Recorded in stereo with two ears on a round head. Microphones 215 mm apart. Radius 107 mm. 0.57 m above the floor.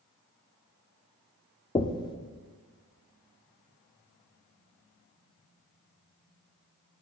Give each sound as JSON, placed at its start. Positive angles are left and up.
{"t": 1.8, "sound": "knocking", "side_deg": 20, "distance_m": 0.5}